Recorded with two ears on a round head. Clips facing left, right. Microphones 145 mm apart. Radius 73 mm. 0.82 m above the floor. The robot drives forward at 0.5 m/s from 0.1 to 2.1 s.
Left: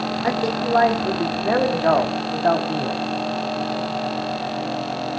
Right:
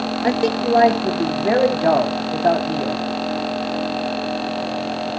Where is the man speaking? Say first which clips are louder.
Right 4 dB; 30° right (ahead or behind), 1.1 m; by 3.0 s 20° right (ahead or behind), 1.8 m.